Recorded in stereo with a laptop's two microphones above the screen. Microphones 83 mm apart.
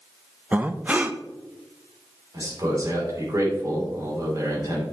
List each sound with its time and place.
0.5 s breathing: 20° right (ahead or behind), 0.6 m
2.3 s a man speaking: 45° right (ahead or behind), 3 m